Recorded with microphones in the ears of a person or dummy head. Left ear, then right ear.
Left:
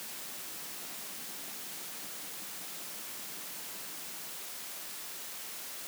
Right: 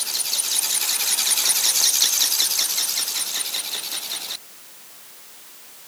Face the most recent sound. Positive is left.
No sound to turn to.